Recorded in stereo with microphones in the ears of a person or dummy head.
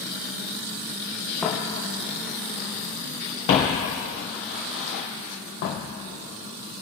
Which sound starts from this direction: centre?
Footsteps, at 1.4 s.